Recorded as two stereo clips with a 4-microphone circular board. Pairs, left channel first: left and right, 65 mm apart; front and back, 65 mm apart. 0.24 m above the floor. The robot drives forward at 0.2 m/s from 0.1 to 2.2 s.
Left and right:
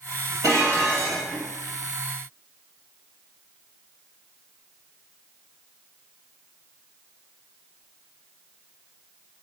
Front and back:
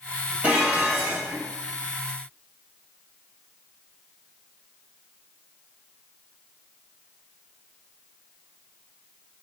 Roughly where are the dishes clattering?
Behind right.